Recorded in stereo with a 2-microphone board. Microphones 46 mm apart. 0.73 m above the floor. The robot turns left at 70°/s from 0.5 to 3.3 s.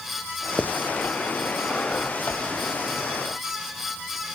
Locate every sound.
0.6 s writing: 30° right (ahead or behind), 0.6 m; by 0.7 s 25° right (ahead or behind), 0.6 m